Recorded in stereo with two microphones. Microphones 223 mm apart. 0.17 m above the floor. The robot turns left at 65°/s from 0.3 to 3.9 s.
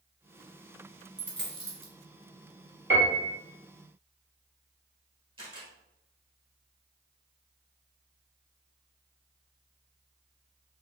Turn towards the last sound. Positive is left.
turn(degrees=-25)  # may be behind; listen again after turning